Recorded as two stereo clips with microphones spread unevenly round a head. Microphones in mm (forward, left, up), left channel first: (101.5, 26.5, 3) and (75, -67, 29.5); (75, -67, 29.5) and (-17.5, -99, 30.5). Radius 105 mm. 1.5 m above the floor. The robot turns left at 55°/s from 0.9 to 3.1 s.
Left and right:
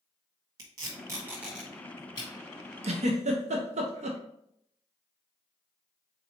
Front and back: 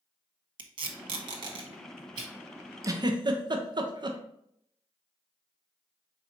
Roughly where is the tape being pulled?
Behind right.